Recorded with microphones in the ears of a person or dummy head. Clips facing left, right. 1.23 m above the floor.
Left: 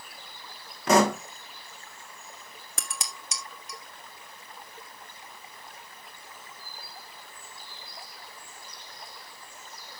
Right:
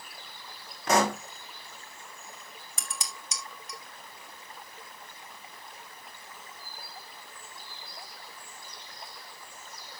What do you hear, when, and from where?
0.9 s a pop: 65° left (ahead or behind), 1.3 m
2.8 s dishes clattering: 45° left (ahead or behind), 1.4 m